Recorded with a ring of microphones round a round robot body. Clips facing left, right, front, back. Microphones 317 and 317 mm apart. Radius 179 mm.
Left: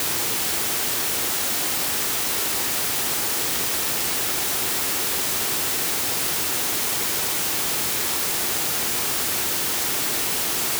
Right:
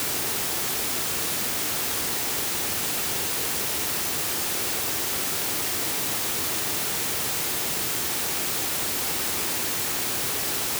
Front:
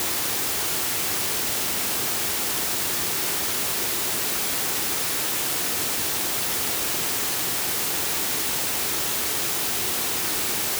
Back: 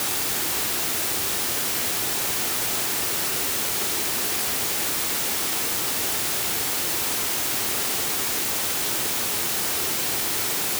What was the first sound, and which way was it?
Only background noise.